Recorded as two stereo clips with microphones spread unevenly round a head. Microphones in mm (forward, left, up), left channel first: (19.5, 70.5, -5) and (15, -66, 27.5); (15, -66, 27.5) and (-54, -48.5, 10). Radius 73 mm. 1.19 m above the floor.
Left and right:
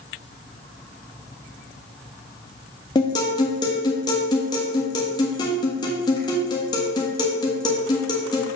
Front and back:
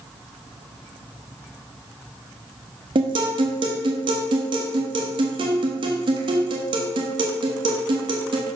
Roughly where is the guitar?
Behind left.